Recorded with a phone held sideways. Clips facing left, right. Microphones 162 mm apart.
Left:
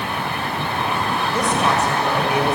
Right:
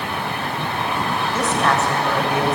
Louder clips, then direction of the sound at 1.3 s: Even; 15° left (ahead or behind).